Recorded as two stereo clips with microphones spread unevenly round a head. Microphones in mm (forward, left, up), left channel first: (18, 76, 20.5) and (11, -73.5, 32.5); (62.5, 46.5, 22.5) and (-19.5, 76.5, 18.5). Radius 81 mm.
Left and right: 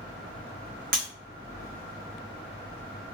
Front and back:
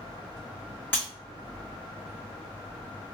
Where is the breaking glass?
95° right, 1.1 m.